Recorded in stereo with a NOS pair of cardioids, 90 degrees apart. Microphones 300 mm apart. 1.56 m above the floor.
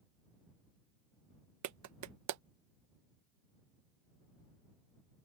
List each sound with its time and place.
1.6 s a clap: 65° right